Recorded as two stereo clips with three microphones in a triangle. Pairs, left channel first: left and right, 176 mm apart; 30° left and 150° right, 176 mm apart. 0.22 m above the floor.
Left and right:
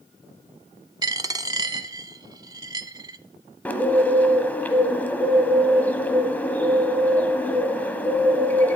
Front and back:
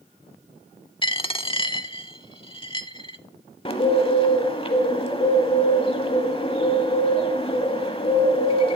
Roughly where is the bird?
Ahead.